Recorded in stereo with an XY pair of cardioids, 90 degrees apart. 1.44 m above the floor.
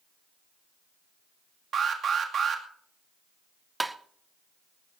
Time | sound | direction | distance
1.7 | an alarm | 60° right | 2.5 m
3.8 | tapping | 15° right | 0.9 m